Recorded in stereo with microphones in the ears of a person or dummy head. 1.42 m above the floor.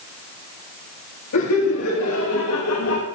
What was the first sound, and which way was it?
Laughter, 90° left.